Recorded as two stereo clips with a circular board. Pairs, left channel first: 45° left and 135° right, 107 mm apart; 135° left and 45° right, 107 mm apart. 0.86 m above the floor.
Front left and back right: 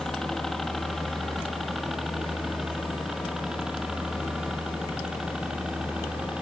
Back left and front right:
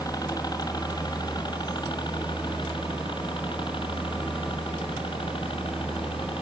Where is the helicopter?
130° left; by 6.4 s 145° left.